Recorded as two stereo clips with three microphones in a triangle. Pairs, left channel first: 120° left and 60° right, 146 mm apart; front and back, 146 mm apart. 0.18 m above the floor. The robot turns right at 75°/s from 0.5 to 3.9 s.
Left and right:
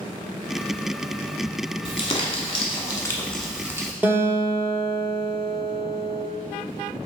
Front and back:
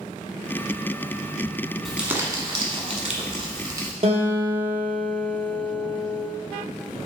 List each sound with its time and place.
1.9 s crumpling: 90° left, 0.9 m; by 3.9 s 115° right, 0.9 m
4.0 s a guitar: 135° right, 1.4 m